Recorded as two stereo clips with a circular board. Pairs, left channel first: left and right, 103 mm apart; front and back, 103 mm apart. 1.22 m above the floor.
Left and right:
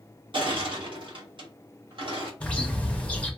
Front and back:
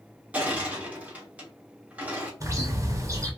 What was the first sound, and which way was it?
Crushing, 105° right.